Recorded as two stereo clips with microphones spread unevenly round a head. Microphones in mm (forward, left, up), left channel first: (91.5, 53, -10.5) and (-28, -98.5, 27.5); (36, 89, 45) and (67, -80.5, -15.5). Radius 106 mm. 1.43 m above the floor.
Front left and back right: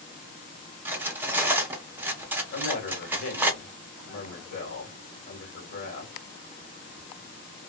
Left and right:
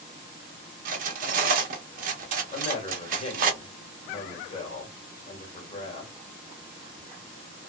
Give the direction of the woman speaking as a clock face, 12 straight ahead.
11 o'clock.